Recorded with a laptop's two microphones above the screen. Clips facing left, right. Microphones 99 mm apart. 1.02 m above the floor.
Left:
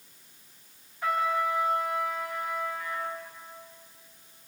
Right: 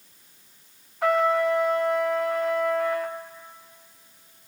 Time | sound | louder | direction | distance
1.0 | a trumpet | right 6 dB | 85° right | 1.4 m